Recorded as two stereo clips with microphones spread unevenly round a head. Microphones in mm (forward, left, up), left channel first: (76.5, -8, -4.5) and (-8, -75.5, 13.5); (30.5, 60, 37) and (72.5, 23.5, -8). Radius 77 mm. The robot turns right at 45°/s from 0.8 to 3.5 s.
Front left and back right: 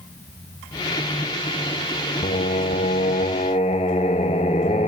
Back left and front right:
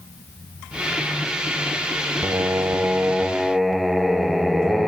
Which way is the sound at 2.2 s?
25° left.